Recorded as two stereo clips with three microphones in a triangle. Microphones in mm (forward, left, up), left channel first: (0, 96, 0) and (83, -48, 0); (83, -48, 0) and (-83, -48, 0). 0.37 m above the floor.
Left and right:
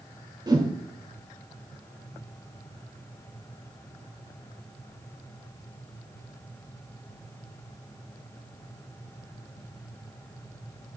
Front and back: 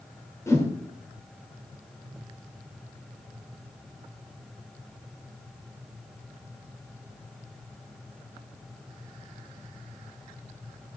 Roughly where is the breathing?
No breathing in this recording.